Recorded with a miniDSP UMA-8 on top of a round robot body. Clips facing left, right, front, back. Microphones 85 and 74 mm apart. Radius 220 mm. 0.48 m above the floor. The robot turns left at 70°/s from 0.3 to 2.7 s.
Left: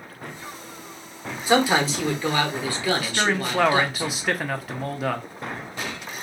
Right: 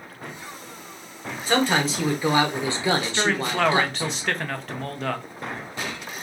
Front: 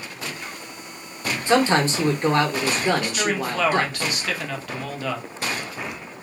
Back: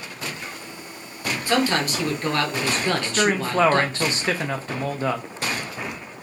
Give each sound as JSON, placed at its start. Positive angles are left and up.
{"t": 1.5, "sound": "a man speaking", "azimuth_deg": 30, "distance_m": 1.0}
{"t": 3.0, "sound": "a man speaking", "azimuth_deg": 165, "distance_m": 0.7}